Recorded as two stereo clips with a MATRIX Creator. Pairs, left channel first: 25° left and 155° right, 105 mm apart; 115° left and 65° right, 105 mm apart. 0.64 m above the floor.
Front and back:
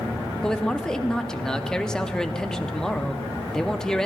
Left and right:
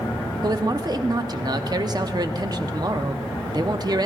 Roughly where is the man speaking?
Ahead right.